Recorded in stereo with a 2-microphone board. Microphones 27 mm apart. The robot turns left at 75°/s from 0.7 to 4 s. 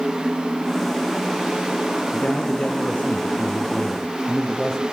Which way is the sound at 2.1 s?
150° left.